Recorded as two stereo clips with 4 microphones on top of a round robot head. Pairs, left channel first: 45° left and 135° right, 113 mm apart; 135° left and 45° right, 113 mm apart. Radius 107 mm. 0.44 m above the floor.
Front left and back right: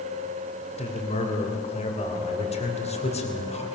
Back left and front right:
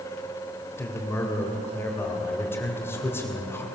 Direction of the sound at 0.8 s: 65° left.